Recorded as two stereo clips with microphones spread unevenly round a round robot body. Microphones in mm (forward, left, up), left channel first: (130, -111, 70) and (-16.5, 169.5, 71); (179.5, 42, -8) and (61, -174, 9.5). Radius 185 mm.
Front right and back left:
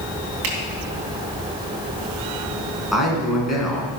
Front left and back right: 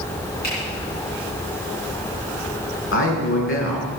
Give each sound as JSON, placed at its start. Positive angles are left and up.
{"t": 0.4, "sound": "a finger snap", "azimuth_deg": 125, "distance_m": 3.0}
{"t": 2.9, "sound": "a man speaking", "azimuth_deg": 30, "distance_m": 4.5}